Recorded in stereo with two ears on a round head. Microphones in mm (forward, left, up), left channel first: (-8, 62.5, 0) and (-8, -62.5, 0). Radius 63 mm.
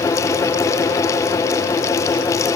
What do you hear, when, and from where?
Only background noise.